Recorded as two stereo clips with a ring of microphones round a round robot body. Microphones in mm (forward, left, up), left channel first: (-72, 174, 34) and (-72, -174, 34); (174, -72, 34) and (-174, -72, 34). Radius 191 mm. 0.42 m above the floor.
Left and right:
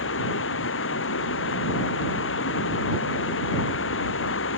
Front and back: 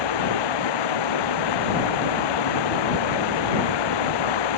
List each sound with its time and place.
0.0 s running water: 30° left